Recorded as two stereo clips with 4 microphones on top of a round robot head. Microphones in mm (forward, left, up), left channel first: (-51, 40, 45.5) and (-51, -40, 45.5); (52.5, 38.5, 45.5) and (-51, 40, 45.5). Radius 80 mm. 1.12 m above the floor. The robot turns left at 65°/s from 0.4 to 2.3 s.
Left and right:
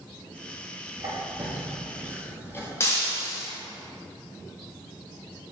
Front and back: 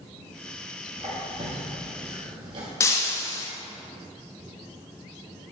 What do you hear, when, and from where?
1.0 s a squeak: 125° right, 1.7 m; by 2.7 s 150° left, 1.7 m
2.8 s breaking glass: 40° left, 0.5 m